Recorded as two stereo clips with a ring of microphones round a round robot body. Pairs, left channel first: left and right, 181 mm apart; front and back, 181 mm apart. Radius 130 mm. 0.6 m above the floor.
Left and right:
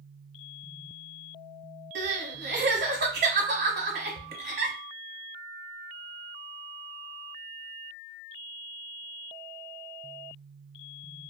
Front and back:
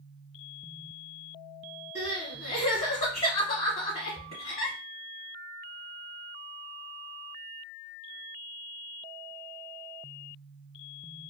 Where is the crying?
70° right, 1.1 m.